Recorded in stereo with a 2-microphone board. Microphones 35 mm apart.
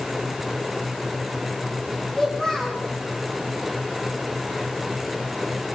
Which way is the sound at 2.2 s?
15° left (ahead or behind).